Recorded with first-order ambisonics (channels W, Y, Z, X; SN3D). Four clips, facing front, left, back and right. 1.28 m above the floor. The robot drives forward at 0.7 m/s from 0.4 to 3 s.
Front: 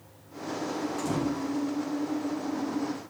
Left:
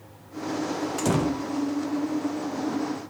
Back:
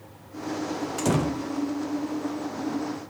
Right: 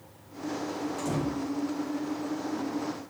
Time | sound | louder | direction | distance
1.0 | a door slam | left 7 dB, back 6 dB | 135° left | 0.8 m